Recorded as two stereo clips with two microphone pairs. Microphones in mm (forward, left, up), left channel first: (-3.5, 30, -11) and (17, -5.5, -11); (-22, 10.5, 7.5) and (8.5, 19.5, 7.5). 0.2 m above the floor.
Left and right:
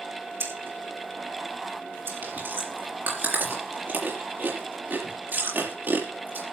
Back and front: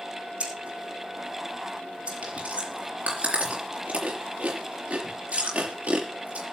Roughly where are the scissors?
Ahead right.